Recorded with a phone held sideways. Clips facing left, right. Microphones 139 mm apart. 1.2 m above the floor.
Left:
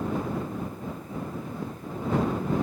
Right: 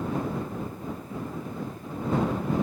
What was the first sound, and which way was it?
Only background noise.